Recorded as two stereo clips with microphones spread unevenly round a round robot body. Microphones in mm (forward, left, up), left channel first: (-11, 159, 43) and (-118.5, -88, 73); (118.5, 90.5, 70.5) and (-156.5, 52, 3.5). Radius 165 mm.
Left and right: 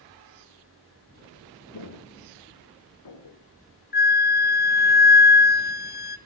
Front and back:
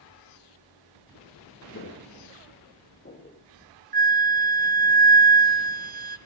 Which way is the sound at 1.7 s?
55° left.